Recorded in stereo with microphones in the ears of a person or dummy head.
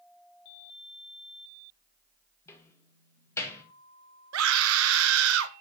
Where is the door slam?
15° left (ahead or behind), 1.8 m.